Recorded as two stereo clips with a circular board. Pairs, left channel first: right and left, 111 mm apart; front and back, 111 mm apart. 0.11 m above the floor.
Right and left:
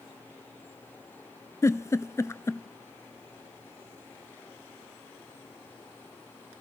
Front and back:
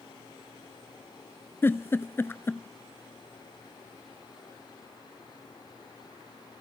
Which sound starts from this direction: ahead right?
A giggle, at 1.6 s.